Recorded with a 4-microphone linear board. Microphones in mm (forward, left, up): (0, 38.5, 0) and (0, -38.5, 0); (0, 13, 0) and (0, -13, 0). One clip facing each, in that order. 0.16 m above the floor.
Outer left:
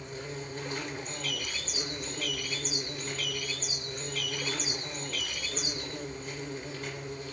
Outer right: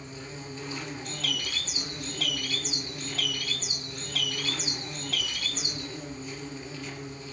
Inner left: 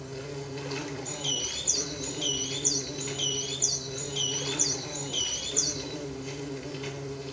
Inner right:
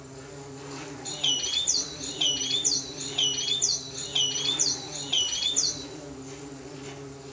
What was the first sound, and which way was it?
An insect, 45° left (ahead or behind).